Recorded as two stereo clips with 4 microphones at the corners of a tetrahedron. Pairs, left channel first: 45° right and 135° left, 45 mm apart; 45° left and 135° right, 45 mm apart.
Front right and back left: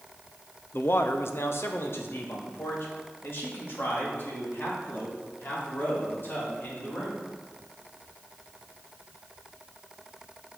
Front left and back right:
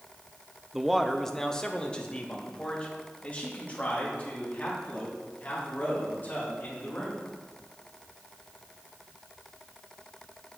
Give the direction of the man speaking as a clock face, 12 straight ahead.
2 o'clock.